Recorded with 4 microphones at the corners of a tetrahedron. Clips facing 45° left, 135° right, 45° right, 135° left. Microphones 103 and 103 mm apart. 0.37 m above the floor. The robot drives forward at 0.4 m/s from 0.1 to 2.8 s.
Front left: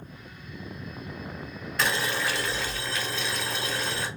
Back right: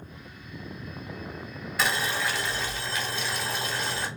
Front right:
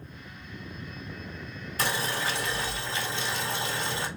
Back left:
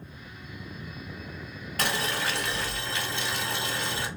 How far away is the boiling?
About 1.8 m.